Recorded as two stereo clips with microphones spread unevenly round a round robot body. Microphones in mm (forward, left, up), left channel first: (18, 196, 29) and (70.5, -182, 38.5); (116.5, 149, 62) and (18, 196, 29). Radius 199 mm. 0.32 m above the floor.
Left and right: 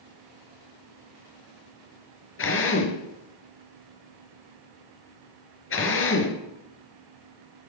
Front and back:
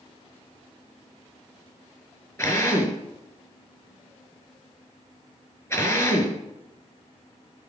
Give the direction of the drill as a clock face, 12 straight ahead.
11 o'clock.